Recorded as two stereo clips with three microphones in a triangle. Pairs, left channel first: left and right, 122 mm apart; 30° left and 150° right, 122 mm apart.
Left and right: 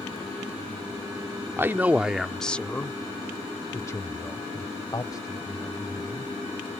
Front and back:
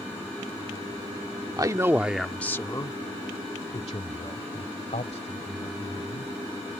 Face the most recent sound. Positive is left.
turn(degrees=35)